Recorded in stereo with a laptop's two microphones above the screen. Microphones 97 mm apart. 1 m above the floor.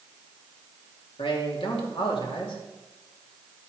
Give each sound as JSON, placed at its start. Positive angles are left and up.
{"t": 1.2, "sound": "a man speaking", "side_deg": 70, "distance_m": 2.5}